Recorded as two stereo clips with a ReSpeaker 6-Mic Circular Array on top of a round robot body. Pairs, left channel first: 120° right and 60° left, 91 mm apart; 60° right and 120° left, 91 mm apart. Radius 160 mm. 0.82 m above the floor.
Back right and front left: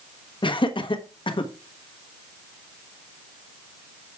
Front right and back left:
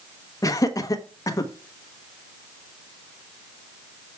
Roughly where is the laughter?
Right.